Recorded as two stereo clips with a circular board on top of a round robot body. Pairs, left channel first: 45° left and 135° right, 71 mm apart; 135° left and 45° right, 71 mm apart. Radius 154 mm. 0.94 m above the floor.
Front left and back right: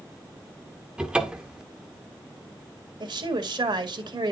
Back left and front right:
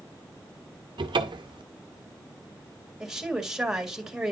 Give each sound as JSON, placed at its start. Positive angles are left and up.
{"t": 1.0, "sound": "a cupboard door", "azimuth_deg": -60, "distance_m": 0.5}
{"t": 3.0, "sound": "a woman speaking", "azimuth_deg": -125, "distance_m": 1.8}